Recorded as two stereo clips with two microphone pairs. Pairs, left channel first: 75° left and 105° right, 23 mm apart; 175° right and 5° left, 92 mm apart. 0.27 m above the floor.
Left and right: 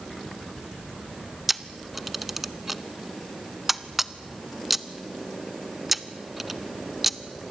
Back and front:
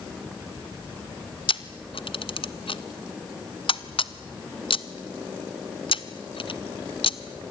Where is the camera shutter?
170° left, 0.8 m.